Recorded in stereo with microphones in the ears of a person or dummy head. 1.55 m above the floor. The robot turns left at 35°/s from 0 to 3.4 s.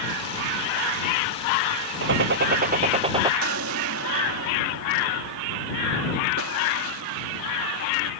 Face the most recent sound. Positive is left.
turn(degrees=-80)